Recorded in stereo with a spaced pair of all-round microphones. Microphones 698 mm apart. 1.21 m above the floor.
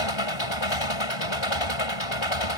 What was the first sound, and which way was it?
An engine running, 40° left (ahead or behind).